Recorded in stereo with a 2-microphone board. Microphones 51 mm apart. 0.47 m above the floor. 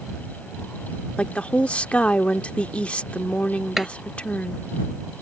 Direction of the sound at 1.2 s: 25° left (ahead or behind).